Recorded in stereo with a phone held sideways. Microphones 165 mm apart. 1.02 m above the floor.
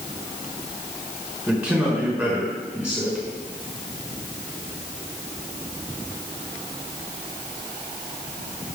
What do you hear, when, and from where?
1.5 s a man speaking: 5° right (ahead or behind), 3.5 m